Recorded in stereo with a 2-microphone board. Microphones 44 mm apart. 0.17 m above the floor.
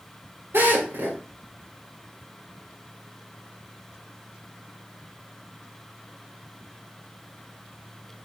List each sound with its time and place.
0.5 s a drill: 85° right, 10 m